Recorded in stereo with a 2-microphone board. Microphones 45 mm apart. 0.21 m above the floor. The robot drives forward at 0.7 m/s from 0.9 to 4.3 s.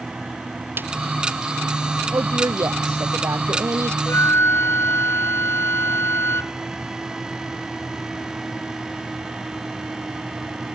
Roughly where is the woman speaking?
Right.